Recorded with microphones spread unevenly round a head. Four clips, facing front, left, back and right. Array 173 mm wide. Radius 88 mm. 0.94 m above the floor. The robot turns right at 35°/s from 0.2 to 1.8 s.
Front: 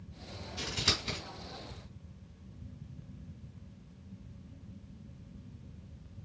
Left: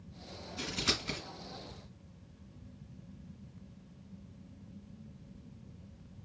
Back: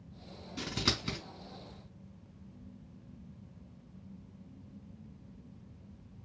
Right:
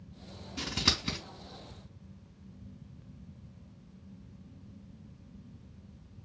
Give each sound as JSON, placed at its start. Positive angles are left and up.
{"t": 0.6, "sound": "scissors", "azimuth_deg": -120, "distance_m": 3.5}